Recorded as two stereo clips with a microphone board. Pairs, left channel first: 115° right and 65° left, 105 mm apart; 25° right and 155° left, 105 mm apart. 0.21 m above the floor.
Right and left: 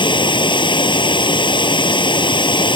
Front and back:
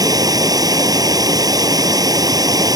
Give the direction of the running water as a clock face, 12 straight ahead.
5 o'clock.